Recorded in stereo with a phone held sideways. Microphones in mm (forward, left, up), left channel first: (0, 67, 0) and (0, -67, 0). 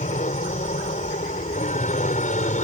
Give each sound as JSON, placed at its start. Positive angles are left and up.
{"t": 0.0, "sound": "an aircraft", "side_deg": 65}